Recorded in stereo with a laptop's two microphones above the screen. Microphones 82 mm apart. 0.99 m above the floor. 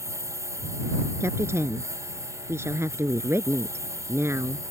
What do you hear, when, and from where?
0.0 s a lawn mower: 35° right (ahead or behind)
1.2 s a woman speaking: 35° right (ahead or behind)